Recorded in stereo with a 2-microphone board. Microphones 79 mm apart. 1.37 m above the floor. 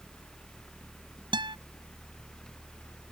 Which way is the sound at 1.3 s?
70° right (ahead or behind).